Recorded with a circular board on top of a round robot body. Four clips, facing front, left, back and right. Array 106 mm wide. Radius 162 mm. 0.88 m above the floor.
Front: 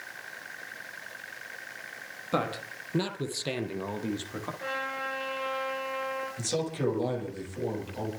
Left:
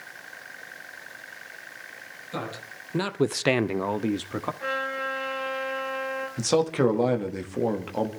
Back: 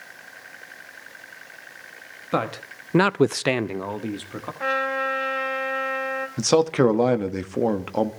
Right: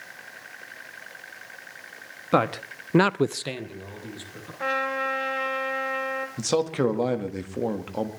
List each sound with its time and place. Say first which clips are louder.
2.3 s a man speaking: right 12 dB, back 4 dB; 110° right, 1.4 m; by 4.5 s 100° left, 1.9 m
4.6 s a trumpet: right 8 dB, back 12 dB; 140° right, 4.5 m
6.4 s a man speaking: left 2 dB, back 15 dB; 175° left, 1.8 m